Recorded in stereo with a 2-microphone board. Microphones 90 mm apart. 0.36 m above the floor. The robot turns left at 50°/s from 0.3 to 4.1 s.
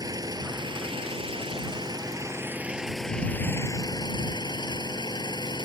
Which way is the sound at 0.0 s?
45° right.